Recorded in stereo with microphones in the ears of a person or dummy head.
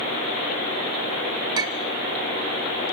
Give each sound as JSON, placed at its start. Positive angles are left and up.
{"t": 1.6, "sound": "a clink", "side_deg": -25, "distance_m": 1.4}